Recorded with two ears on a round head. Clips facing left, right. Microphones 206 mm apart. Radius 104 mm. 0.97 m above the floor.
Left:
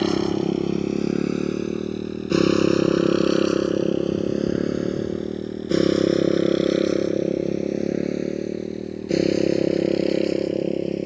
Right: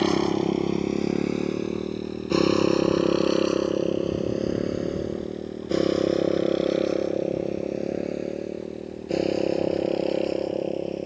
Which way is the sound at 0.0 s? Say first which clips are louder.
Left 1 dB; 5° left (ahead or behind).